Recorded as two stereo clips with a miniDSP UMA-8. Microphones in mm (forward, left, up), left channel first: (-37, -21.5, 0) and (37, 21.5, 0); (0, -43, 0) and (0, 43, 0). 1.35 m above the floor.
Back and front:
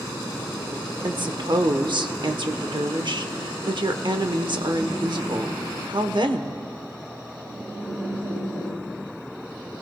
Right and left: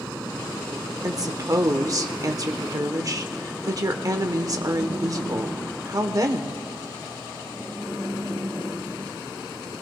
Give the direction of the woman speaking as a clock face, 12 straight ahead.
10 o'clock.